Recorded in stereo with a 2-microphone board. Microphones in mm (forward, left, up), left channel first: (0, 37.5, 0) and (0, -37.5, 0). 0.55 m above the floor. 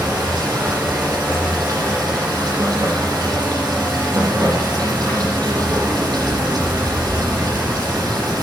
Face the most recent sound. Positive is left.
turn(degrees=-60)  # may be behind; listen again after turning